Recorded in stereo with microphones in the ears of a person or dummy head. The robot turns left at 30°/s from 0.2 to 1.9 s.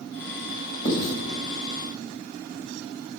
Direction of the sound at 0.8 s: 65° left (ahead or behind).